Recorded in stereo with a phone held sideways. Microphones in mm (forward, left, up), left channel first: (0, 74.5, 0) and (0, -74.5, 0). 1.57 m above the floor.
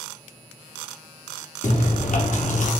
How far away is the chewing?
About 0.7 m.